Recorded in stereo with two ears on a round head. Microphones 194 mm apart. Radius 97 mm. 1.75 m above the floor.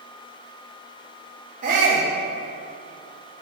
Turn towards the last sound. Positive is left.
turn(degrees=-35)  # may be behind; listen again after turning